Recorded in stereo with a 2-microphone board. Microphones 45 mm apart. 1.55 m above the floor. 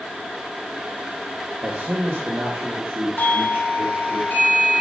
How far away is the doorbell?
About 1.9 m.